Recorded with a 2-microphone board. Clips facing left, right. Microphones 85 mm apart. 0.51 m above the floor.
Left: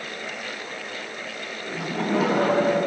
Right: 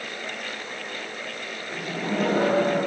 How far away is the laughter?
About 5.5 m.